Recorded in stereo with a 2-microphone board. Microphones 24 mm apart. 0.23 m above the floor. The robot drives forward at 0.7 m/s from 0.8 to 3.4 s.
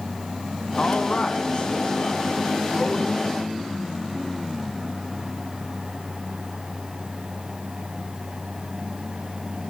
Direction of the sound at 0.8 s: 50° left (ahead or behind).